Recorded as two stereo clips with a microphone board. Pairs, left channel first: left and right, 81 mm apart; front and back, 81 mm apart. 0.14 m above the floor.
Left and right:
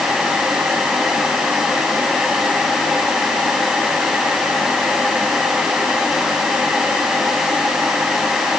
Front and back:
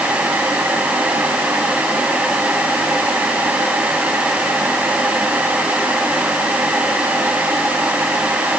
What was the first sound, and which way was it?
Only background noise.